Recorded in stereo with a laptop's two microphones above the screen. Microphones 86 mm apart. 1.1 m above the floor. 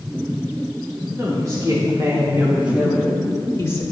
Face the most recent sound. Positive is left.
turn(degrees=40)  # may be behind; listen again after turning